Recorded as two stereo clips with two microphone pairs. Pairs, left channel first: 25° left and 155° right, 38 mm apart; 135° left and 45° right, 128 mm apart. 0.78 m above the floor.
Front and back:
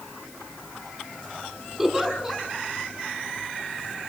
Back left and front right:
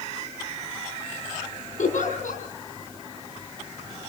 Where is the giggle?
130° left, 4.5 m.